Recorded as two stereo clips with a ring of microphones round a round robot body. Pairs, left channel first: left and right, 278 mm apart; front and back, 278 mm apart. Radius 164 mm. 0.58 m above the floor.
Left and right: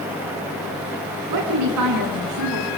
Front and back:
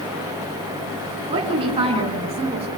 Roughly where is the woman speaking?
Right.